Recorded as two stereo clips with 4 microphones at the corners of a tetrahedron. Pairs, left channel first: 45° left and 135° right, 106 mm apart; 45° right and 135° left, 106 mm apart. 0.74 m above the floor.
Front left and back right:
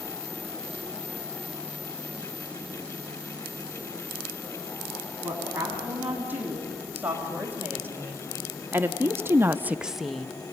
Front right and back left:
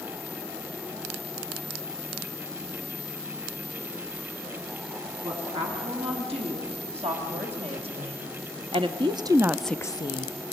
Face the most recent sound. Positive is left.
turn(degrees=-40)